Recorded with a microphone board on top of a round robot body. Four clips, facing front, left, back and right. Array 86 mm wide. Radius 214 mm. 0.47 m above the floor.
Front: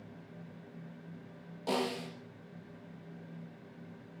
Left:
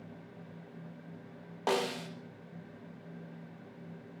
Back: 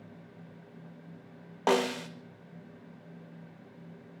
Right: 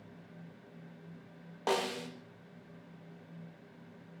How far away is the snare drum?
About 0.5 m.